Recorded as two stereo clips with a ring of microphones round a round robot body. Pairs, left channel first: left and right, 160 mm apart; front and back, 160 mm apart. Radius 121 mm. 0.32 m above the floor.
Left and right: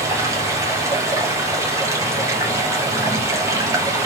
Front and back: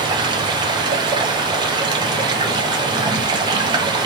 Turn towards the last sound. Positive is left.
turn(degrees=-145)